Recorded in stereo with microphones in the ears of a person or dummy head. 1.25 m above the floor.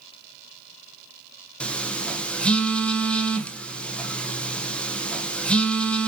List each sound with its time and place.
1.6 s a phone buzzing: 5° left (ahead or behind), 0.5 m